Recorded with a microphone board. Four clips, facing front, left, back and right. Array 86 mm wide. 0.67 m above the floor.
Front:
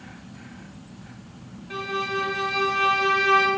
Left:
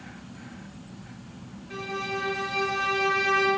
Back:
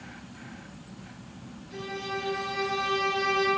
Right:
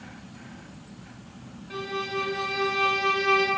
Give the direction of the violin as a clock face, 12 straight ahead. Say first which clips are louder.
Right 1 dB, front 7 dB; 1 o'clock.